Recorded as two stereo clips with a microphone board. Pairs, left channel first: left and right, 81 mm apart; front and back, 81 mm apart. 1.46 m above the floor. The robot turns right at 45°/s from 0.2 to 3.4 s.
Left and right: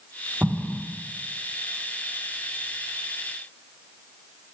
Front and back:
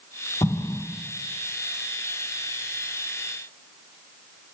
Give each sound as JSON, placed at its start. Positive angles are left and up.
{"t": 0.4, "sound": "an explosion", "azimuth_deg": -20, "distance_m": 1.3}